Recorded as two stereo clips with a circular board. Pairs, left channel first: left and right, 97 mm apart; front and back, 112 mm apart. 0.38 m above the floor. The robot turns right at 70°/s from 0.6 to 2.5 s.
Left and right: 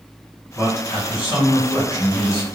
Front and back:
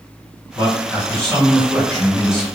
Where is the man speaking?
35° left, 1.7 m; by 2.4 s 165° left, 1.7 m.